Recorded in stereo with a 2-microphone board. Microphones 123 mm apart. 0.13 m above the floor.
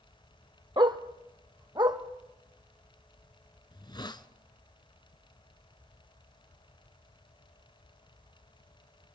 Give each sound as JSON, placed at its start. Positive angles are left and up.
{"t": 0.8, "sound": "a dog barking", "side_deg": -40, "distance_m": 1.1}
{"t": 3.7, "sound": "a hiss", "side_deg": 40, "distance_m": 0.8}